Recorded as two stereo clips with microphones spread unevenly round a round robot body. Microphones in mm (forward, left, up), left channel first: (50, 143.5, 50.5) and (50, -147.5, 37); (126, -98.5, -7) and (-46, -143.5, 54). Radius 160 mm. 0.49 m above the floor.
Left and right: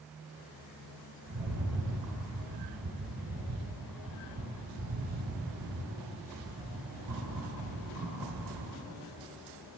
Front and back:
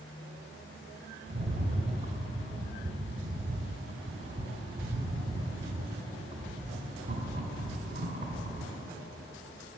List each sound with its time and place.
1.3 s a rattle: 140° right, 1.9 m